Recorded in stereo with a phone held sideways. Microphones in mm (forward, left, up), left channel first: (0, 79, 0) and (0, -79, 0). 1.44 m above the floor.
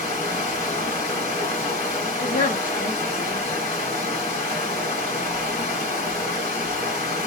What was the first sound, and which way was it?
Running water, 40° left (ahead or behind).